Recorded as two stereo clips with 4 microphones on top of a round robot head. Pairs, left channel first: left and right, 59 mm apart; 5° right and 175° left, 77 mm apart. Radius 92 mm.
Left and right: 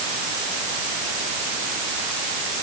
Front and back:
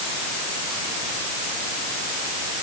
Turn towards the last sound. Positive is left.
No sound to turn to.